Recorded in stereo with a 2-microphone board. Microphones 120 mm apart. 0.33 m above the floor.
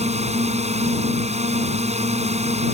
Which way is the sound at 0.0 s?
65° right (ahead or behind).